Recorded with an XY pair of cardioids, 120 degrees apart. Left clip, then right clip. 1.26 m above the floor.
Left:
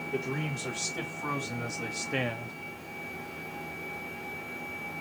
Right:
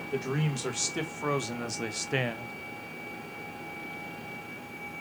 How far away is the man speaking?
About 2 m.